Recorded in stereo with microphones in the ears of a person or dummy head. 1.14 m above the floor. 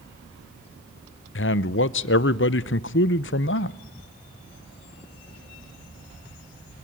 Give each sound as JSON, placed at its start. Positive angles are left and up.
{"t": 1.4, "sound": "a man speaking", "side_deg": 50, "distance_m": 0.7}